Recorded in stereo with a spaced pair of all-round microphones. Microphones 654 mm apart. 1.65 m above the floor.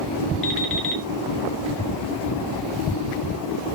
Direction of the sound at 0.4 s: 15° left (ahead or behind).